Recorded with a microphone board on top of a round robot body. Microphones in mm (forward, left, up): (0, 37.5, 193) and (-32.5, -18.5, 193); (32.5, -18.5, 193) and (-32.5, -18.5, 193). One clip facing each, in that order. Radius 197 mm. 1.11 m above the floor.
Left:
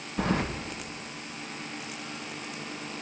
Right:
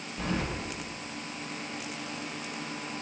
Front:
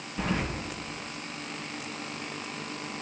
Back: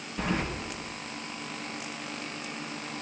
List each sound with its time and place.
0.2 s keys jangling: 95° left, 0.8 m